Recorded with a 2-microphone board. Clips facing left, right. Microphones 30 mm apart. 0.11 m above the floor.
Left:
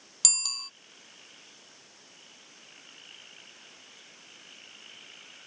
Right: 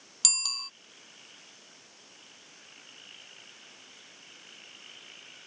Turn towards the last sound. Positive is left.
turn(degrees=-10)  # may be behind; listen again after turning